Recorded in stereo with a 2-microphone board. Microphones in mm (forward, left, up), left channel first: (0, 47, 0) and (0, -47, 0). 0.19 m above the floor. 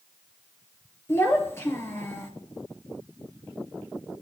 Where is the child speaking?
25° left (ahead or behind), 3 m.